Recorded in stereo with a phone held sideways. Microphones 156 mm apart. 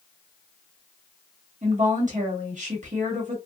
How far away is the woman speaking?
About 1.4 m.